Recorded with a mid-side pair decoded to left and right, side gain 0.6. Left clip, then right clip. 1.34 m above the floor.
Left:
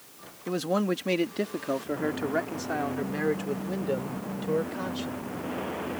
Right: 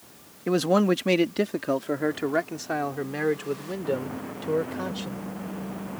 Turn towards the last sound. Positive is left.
turn(degrees=-15)